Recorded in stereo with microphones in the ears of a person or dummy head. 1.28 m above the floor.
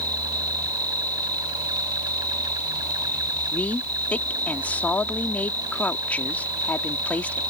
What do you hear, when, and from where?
0.0 s an insect: 20° right (ahead or behind)
3.5 s a woman speaking: 10° left (ahead or behind)